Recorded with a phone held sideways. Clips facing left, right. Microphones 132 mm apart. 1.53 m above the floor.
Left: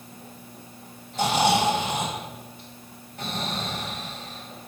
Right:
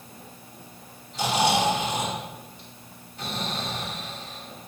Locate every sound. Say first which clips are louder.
1.1 s snoring: left 2 dB; 55° left (ahead or behind), 2.5 m